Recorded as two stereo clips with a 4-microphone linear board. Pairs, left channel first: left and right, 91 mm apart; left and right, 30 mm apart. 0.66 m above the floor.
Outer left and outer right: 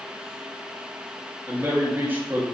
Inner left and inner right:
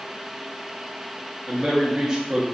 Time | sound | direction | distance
1.5 | a man speaking | 20° right (ahead or behind) | 0.6 m